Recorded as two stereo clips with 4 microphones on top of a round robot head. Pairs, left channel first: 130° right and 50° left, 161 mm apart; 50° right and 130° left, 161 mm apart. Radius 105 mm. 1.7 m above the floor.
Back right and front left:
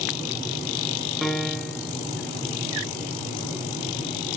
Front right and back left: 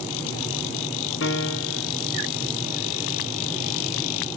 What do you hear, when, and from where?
1.2 s a piano: 40° right, 1.3 m